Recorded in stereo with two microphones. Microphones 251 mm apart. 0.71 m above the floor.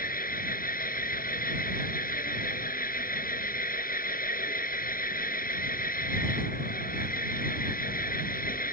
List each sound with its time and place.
0.0 s an engine running: 40° left (ahead or behind)